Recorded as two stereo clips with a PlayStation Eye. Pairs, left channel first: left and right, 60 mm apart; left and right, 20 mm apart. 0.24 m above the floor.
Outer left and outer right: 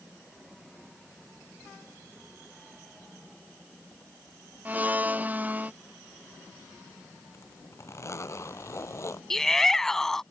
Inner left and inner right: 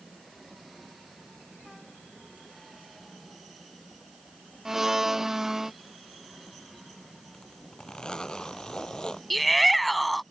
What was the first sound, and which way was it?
A blender, 30° right (ahead or behind).